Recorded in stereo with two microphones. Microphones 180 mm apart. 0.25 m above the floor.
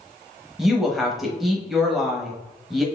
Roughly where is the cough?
No cough in this recording.